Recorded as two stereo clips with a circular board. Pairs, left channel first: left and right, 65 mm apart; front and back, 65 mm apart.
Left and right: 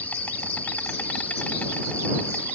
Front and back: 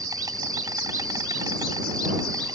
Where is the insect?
155° left.